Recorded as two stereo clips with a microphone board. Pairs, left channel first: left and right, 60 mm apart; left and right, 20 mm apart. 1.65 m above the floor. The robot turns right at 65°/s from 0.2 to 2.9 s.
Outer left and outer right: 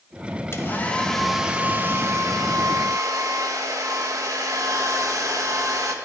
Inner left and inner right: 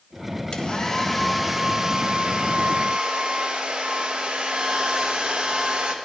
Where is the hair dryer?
130° left, 1.6 m; by 6.0 s 75° right, 1.6 m.